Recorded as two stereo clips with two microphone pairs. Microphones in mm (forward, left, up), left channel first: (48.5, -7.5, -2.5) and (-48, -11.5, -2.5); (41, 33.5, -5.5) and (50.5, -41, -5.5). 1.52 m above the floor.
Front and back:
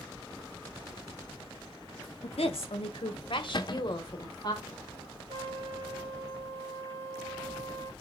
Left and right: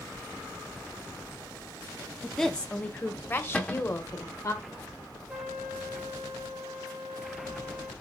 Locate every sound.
2.2 s a woman speaking: 5° left, 1.1 m; by 4.5 s 50° left, 2 m
3.5 s a cupboard door: 25° left, 0.9 m
5.3 s a trumpet: 165° right, 2 m